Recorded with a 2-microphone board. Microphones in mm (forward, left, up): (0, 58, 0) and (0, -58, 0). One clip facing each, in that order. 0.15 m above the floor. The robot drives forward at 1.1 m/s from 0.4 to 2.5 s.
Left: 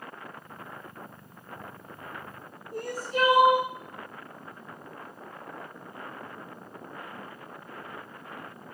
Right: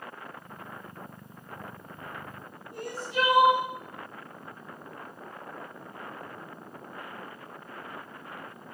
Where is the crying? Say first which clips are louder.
Left 2 dB; 40° left (ahead or behind), 2 m.